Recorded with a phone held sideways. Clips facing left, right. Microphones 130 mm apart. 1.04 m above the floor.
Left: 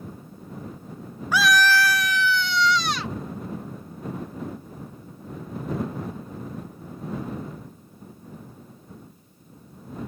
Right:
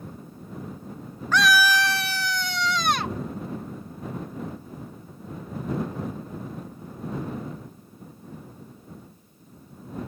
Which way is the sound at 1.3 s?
10° left (ahead or behind).